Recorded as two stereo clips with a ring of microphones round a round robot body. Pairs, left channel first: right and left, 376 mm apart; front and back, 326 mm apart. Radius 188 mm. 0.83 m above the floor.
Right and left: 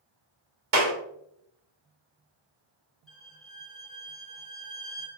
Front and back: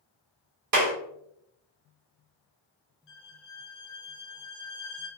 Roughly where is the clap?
Behind left.